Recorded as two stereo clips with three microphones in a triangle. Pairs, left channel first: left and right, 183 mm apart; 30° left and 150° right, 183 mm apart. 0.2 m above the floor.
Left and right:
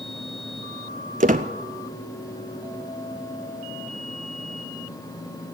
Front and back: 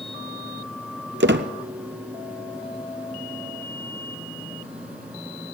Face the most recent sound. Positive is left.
turn(degrees=-135)